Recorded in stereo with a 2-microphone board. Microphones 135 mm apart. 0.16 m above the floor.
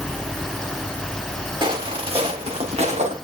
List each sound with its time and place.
1.6 s footsteps: 40° right (ahead or behind), 5.5 m; by 3.1 s 55° right (ahead or behind), 5.5 m